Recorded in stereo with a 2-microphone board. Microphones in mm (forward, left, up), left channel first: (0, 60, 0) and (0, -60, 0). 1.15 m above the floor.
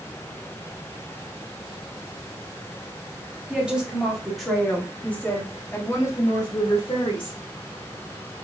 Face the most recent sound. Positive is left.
turn(degrees=50)  # may be behind; listen again after turning